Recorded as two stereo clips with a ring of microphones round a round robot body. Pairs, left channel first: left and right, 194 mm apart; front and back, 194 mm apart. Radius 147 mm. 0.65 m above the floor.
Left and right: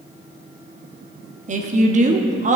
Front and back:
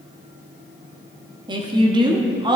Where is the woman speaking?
120° right, 0.8 m.